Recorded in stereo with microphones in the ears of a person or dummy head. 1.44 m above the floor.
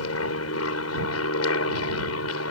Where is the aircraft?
75° left (ahead or behind).